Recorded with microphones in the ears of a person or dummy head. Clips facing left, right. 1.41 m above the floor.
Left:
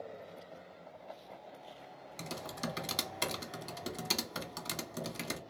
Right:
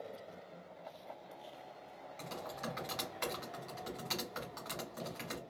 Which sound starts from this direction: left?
Typing on a keyboard, at 2.2 s.